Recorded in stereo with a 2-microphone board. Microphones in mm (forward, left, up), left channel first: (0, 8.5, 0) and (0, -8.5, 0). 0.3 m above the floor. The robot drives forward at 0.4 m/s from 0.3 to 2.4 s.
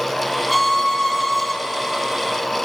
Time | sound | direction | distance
0.5 | a violin | centre (ahead or behind) | 3 m